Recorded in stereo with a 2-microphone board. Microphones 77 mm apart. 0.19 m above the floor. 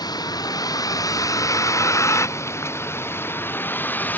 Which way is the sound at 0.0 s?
60° left (ahead or behind).